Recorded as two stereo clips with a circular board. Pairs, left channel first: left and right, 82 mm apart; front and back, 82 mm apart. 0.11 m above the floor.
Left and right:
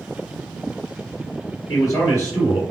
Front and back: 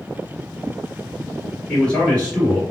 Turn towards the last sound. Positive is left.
turn(degrees=70)